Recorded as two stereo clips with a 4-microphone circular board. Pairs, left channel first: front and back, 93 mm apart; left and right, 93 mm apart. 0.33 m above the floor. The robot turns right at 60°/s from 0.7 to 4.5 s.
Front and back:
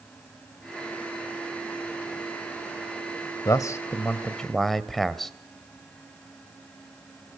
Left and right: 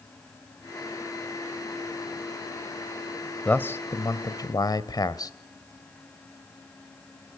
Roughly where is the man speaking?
Ahead left.